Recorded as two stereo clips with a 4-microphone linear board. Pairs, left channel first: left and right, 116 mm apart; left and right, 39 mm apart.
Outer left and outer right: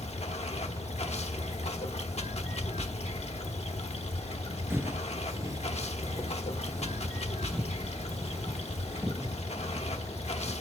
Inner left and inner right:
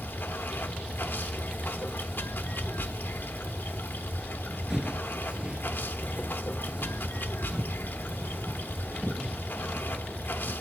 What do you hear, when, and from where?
0.0 s running water: 65° left (ahead or behind), 1.1 m
4.7 s footsteps: 20° right (ahead or behind), 0.6 m